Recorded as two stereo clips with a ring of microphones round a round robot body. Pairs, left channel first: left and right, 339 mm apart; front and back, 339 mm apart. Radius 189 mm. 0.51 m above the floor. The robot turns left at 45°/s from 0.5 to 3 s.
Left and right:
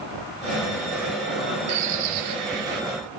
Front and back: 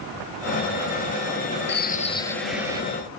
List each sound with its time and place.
1.7 s a bird: 55° right, 1.0 m; by 2.8 s 105° right, 1.0 m